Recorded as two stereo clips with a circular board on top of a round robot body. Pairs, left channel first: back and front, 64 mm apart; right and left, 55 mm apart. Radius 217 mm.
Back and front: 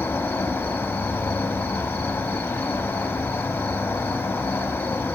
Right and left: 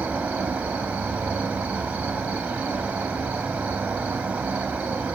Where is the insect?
130° left, 2 m.